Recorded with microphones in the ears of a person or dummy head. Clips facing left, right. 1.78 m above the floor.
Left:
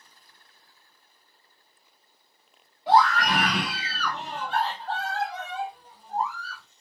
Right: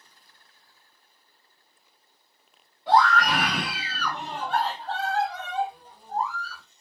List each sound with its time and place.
2.9 s a scream: 10° left (ahead or behind), 1.2 m; by 6.6 s 75° right (ahead or behind), 1.2 m